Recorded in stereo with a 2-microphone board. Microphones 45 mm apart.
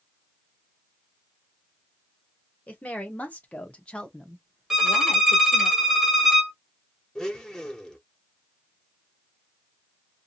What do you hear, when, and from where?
2.7 s a woman speaking: 30° left (ahead or behind), 1.1 m; by 5.7 s 15° right (ahead or behind), 1.3 m
4.7 s a violin: 10° right (ahead or behind), 1.3 m
7.2 s a blender: 10° left (ahead or behind), 0.7 m